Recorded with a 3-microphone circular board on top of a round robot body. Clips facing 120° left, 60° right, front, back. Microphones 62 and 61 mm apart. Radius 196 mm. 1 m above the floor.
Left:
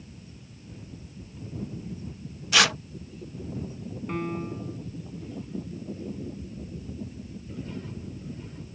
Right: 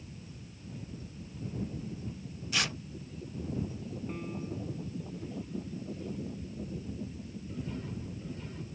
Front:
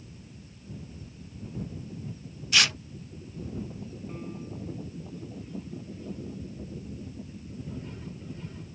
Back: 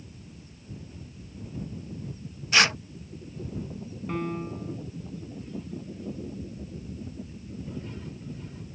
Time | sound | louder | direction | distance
2.5 | tearing paper | left 12 dB, back 4 dB | 120° left | ?
4.1 | a piano | left 10 dB, back 11 dB | 155° left | ?